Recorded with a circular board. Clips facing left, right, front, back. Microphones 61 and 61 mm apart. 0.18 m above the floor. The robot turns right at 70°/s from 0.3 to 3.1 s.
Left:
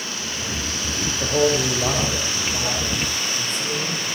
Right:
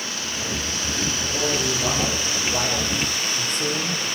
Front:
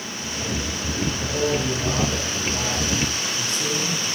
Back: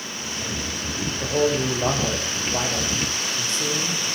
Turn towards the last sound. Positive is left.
turn(degrees=-115)